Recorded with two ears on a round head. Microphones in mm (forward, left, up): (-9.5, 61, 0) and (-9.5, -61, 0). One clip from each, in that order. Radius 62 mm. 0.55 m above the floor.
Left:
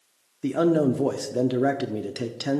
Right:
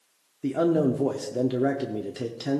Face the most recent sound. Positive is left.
turn(degrees=20)  # may be behind; listen again after turning